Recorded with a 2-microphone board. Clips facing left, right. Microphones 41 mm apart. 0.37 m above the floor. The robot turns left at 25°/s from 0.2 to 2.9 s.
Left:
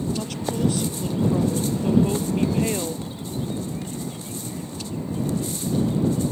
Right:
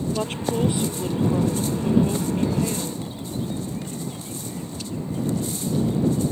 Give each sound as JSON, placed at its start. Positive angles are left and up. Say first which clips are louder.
{"t": 0.1, "sound": "a woman speaking", "louder": "right 2 dB", "azimuth_deg": -145}